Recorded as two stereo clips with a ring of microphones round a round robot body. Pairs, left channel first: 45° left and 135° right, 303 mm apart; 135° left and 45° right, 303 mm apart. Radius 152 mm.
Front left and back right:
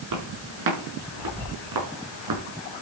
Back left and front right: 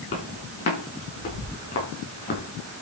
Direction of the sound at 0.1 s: 165° right.